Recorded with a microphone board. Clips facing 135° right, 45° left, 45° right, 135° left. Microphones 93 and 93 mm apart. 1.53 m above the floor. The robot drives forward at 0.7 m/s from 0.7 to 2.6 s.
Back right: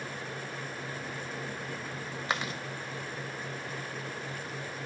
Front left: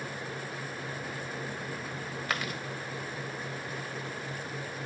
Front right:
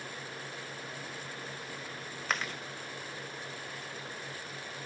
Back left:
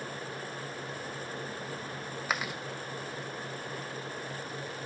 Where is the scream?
No scream in this recording.